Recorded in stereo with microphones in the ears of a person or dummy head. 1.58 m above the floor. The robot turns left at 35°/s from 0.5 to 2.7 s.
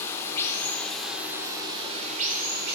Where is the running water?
25° left, 3 m; by 2.8 s 50° right, 3 m.